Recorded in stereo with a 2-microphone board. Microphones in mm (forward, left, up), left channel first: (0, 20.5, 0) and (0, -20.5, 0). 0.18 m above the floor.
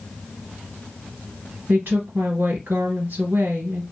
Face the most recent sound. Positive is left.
turn(degrees=-60)  # may be behind; listen again after turning